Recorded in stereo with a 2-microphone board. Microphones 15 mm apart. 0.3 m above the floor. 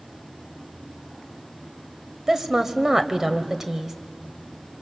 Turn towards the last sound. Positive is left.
turn(degrees=-30)  # may be behind; listen again after turning